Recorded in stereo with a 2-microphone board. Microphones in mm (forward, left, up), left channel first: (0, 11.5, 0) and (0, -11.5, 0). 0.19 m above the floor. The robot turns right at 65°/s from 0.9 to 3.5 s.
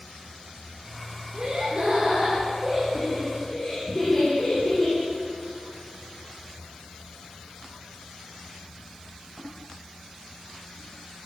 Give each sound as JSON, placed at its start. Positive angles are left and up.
{"t": 1.3, "sound": "laughter", "azimuth_deg": -115, "distance_m": 3.0}